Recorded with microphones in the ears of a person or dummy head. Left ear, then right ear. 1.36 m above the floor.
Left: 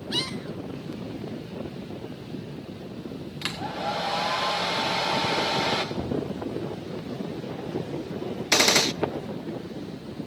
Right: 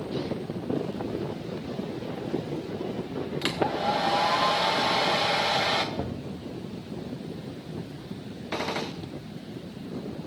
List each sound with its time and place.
3.4 s a hair dryer: 5° right (ahead or behind), 1.4 m
6.0 s knocking: 5° right (ahead or behind), 1.0 m
8.5 s a gunshot: 75° left (ahead or behind), 0.6 m